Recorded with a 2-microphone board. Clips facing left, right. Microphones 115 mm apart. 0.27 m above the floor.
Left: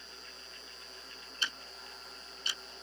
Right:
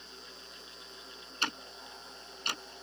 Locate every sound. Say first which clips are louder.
1.4 s ticking: right 5 dB; 60° right (ahead or behind)